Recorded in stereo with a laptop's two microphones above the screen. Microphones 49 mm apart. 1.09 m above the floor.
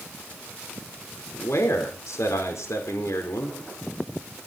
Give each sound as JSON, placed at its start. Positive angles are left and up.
{"t": 1.3, "sound": "a man speaking", "side_deg": 80, "distance_m": 4.0}